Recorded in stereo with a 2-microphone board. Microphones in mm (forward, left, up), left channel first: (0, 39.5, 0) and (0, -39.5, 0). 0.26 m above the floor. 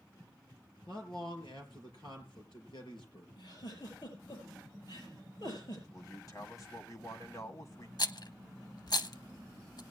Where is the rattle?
55° left (ahead or behind), 0.6 m.